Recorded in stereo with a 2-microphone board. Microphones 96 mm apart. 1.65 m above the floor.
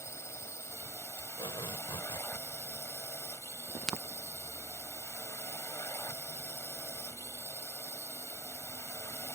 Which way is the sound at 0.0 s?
30° left (ahead or behind).